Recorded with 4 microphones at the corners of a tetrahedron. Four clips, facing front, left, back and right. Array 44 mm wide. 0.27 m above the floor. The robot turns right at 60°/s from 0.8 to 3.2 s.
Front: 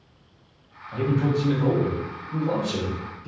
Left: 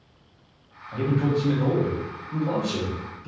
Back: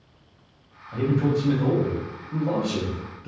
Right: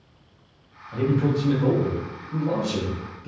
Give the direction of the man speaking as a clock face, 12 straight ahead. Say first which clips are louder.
Right 1 dB, back 1 dB; 10 o'clock.